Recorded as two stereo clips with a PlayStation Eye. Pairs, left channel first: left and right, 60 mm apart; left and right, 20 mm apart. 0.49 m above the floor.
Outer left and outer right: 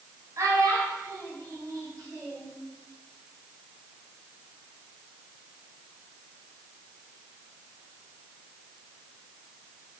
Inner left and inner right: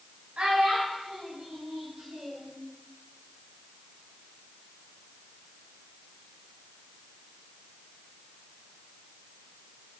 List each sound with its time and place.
0.4 s a child speaking: 60° right (ahead or behind), 1.4 m; by 2.5 s 50° right (ahead or behind), 2.5 m